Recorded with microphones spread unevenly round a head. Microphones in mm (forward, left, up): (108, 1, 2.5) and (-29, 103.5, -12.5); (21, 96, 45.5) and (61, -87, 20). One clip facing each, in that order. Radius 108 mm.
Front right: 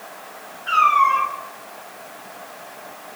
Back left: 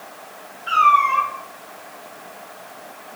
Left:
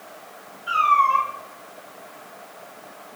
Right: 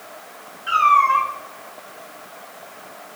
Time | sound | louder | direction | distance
0.7 | a cat meowing | even, right 3 dB | 150° right | 3.5 m